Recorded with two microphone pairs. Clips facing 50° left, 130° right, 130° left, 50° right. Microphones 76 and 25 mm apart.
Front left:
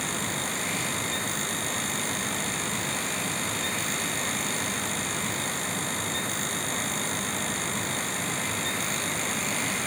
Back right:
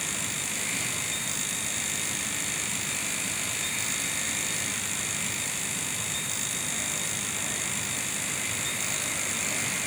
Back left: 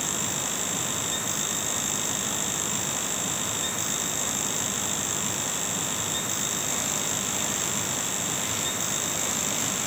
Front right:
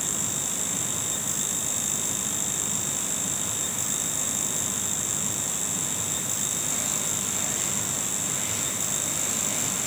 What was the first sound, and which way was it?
Only background noise.